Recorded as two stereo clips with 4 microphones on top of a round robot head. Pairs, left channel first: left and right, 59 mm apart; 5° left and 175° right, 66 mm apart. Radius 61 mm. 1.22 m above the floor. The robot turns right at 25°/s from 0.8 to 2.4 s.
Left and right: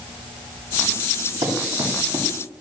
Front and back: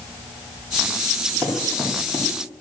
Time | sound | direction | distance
1.4 | running footsteps | 90° right | 7 m